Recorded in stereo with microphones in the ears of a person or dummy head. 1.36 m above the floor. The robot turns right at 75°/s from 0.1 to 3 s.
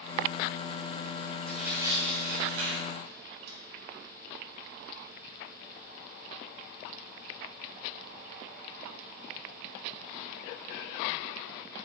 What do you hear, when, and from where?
1.5 s tearing paper: 5° left (ahead or behind), 4.5 m; by 3.6 s 70° right (ahead or behind), 4.5 m